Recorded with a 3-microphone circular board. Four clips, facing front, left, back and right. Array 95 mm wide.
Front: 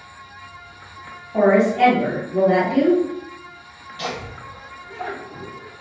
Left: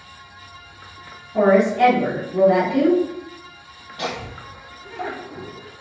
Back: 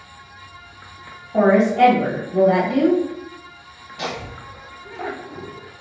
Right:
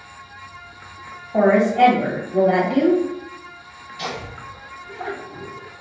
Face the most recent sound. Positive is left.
turn(degrees=125)